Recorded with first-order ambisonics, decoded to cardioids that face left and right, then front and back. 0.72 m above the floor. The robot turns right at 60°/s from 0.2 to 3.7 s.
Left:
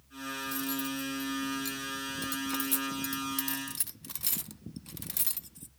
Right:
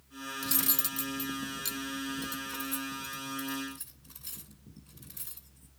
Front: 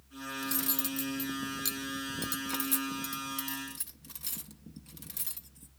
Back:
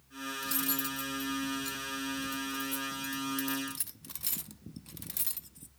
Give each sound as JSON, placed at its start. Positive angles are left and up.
{"t": 0.4, "sound": "cutlery clinking", "azimuth_deg": -90, "distance_m": 0.6}